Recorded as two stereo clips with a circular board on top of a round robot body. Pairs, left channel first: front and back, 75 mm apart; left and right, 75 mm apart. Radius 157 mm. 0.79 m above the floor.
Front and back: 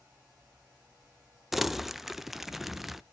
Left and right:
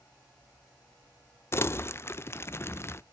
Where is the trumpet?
No trumpet in this recording.